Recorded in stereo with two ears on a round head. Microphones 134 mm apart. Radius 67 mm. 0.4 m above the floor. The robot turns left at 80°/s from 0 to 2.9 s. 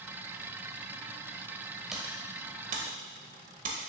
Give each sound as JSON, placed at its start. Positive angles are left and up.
{"t": 1.9, "sound": "typing on a keyboard", "side_deg": 0, "distance_m": 1.1}